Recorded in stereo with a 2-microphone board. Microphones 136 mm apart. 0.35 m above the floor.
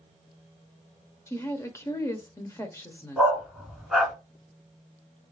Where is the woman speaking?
20° left (ahead or behind), 0.8 m.